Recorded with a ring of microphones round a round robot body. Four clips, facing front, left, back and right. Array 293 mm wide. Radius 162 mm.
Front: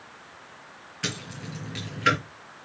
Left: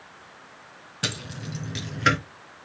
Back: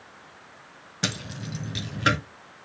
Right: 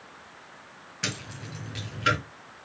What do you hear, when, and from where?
1.0 s keys jangling: 155° left, 1.5 m; by 2.2 s 140° left, 2.0 m